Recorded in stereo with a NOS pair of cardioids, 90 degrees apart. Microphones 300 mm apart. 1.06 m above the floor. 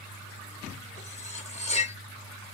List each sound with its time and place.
1.0 s cutlery clinking: 20° left, 1.0 m